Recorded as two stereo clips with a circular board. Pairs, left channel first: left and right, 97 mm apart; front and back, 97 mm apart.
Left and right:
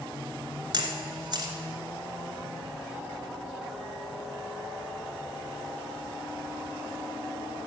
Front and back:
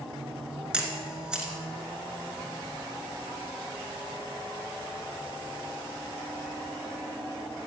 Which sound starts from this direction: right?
A camera shutter, at 0.7 s.